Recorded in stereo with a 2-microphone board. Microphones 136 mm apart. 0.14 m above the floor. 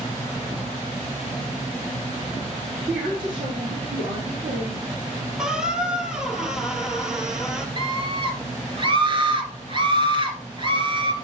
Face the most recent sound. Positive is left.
turn(degrees=-40)  # may be behind; listen again after turning